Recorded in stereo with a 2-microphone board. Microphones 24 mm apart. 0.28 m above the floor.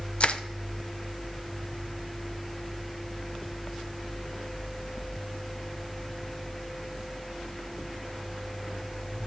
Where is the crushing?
45° left (ahead or behind), 0.6 m.